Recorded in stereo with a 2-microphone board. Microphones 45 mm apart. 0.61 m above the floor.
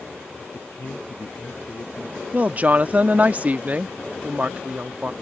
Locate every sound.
0.5 s a man speaking: 60° left (ahead or behind); by 2.2 s 70° left (ahead or behind)
2.3 s a woman speaking: 30° right (ahead or behind)